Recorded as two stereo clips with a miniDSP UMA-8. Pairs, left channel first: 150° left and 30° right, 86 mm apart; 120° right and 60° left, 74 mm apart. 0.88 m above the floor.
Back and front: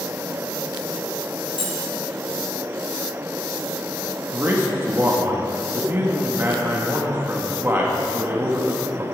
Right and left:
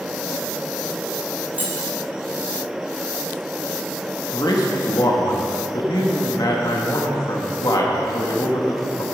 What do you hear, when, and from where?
1.5 s keys jangling: 130° left, 3 m
4.3 s a man speaking: 90° right, 1.2 m